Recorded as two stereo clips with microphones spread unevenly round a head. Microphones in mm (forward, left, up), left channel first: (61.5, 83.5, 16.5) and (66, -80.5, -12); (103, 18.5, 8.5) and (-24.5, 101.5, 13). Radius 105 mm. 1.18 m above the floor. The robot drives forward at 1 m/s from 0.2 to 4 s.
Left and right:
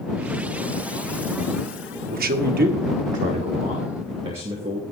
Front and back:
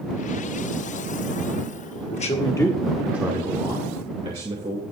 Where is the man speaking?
75° right, 1.1 m; by 4.8 s 150° right, 2.0 m.